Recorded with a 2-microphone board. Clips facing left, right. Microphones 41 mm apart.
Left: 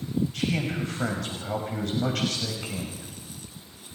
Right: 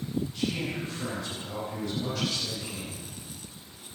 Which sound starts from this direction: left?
A man speaking, at 0.3 s.